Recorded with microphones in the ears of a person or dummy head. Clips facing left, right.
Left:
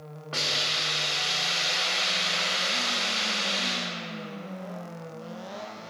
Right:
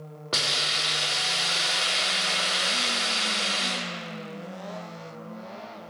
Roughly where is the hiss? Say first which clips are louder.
Right 1 dB; right.